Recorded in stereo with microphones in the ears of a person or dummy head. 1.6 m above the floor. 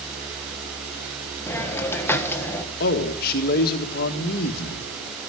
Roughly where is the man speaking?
Left.